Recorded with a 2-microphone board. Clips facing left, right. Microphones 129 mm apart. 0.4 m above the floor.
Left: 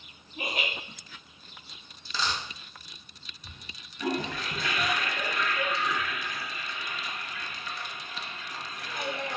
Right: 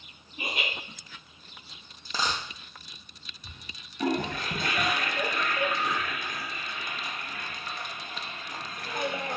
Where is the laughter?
65° left (ahead or behind), 3 m.